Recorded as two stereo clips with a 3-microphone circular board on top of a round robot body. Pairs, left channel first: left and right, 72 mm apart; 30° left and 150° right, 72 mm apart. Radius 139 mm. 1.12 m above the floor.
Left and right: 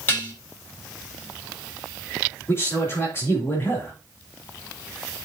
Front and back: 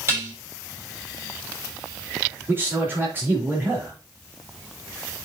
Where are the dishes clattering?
155° left, 3.5 m.